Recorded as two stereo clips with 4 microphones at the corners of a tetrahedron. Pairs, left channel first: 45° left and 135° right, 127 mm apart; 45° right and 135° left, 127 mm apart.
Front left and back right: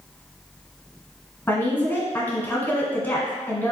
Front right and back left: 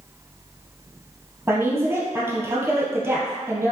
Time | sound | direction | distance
1.5 | a woman speaking | 100° left | 1.2 m